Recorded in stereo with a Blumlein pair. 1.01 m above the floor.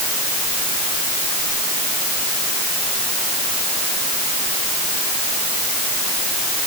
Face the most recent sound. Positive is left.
No sound to turn to.